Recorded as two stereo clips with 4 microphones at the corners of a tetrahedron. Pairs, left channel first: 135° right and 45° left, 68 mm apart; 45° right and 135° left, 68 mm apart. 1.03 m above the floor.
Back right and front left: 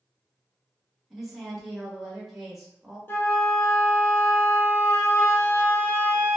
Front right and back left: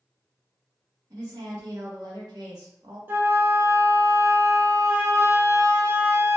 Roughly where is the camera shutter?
I don't hear a camera shutter.